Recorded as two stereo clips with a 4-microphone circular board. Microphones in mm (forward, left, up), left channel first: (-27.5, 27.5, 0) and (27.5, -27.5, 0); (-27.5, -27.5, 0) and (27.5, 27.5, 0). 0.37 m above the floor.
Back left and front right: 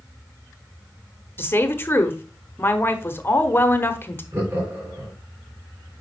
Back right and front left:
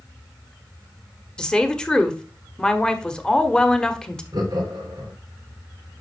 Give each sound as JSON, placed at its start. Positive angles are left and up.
{"t": 1.4, "sound": "a woman speaking", "azimuth_deg": 155, "distance_m": 1.0}
{"t": 4.3, "sound": "laughter", "azimuth_deg": 10, "distance_m": 3.0}